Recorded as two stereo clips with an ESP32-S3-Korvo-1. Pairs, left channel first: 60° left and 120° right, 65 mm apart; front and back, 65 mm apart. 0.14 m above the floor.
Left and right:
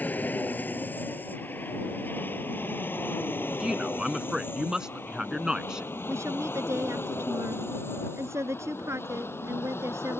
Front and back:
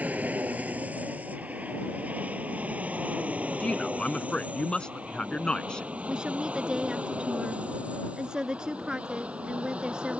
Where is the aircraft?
120° left; by 10.2 s 110° left.